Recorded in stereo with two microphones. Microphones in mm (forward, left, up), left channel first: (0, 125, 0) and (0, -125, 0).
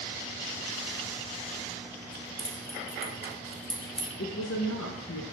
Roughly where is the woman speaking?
Left.